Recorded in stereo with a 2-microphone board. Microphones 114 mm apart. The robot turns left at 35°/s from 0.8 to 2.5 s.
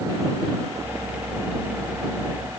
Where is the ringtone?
No ringtone in this recording.